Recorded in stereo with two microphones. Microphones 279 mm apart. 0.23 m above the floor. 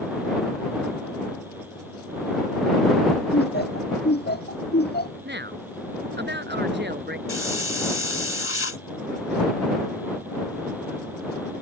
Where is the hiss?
55° left (ahead or behind).